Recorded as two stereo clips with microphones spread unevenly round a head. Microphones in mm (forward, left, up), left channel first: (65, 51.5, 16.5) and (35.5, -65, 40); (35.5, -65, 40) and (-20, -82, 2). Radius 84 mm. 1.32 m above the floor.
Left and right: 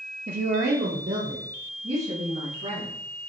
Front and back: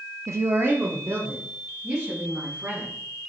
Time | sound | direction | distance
0.3 | a woman speaking | 135° right | 0.6 m